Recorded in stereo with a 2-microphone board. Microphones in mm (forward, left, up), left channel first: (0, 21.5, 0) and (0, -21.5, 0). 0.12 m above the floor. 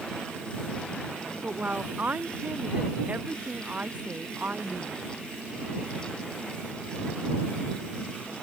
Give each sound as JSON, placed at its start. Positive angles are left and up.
{"t": 1.4, "sound": "a woman speaking", "side_deg": -35}